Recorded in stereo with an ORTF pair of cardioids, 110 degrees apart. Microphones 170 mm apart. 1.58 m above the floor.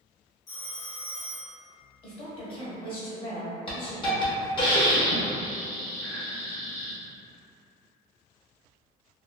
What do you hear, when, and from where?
0.5 s a phone ringing: 40° left, 1.4 m
2.0 s a woman speaking: 30° left, 1.2 m
3.7 s a hiss: 30° left, 1.0 m